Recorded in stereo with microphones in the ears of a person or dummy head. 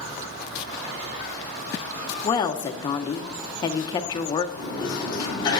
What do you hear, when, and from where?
2.2 s a woman speaking: 25° left (ahead or behind), 0.7 m
4.5 s a sliding door: 25° left (ahead or behind), 5.5 m